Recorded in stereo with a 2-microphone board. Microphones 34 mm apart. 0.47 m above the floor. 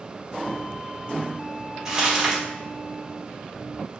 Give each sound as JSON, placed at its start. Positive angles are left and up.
{"t": 1.9, "sound": "crumpling", "side_deg": -15, "distance_m": 1.3}